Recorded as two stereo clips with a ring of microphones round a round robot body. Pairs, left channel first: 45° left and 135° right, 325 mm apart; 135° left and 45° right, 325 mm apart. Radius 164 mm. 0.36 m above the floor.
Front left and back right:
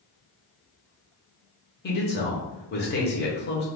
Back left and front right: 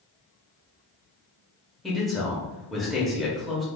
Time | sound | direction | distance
1.8 | a man speaking | 45° left | 1.0 m